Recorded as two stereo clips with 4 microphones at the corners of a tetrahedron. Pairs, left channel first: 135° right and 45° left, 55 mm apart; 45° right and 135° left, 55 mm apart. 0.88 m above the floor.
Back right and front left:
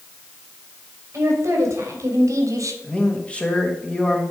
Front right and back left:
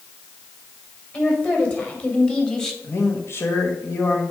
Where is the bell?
No bell in this recording.